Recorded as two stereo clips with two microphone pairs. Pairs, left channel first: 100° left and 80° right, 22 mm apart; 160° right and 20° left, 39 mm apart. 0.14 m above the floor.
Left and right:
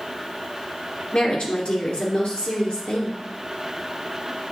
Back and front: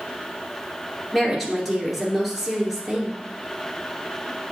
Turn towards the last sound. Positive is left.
turn(degrees=110)